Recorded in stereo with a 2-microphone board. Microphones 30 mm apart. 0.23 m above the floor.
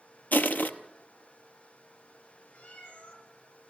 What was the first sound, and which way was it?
Crushing, 90° left.